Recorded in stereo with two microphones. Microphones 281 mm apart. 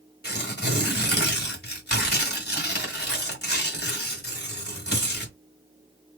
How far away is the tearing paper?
About 2.0 m.